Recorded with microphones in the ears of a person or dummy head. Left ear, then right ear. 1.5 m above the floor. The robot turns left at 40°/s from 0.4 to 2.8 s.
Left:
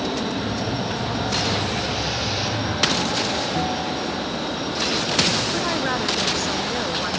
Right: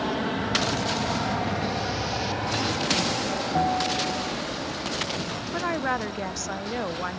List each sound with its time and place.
0.0 s an aircraft: 40° right (ahead or behind); by 7.2 s 5° right (ahead or behind)
3.5 s a bell: 35° right (ahead or behind)
5.5 s a woman speaking: 25° right (ahead or behind)